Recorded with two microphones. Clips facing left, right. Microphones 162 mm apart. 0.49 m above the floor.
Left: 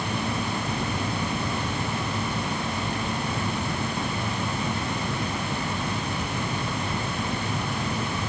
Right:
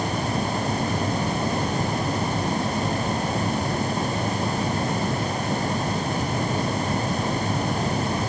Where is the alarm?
I don't hear an alarm.